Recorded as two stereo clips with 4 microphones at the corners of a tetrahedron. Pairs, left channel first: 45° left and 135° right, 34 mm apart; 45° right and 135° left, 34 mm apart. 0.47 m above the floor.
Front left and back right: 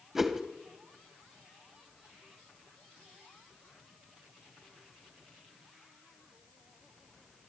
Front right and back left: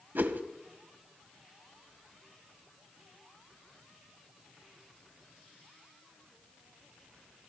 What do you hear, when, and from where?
0.1 s a whoosh: 145° left, 1.4 m